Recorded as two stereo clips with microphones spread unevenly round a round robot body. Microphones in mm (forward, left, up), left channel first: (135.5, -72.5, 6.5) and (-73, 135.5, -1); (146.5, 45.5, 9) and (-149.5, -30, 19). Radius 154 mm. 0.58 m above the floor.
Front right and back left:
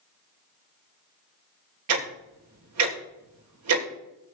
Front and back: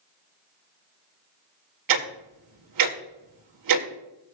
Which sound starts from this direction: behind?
Ticking, at 1.9 s.